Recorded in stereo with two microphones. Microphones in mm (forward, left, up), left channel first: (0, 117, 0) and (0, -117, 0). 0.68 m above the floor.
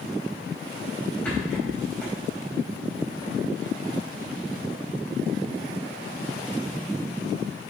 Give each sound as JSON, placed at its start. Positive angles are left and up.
{"t": 1.2, "sound": "a rattle", "side_deg": 5, "distance_m": 4.0}